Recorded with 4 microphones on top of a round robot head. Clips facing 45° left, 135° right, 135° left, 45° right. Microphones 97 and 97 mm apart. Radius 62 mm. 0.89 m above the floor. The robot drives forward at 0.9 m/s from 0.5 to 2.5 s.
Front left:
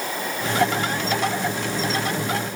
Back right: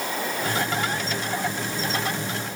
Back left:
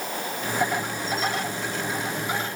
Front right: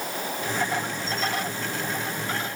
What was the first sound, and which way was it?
Only background noise.